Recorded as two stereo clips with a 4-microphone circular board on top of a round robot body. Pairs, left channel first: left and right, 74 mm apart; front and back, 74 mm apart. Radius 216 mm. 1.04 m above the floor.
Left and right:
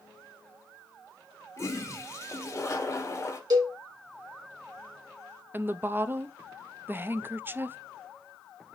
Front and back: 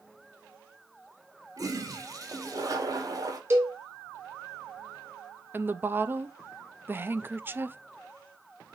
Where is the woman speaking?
135° right, 0.7 m.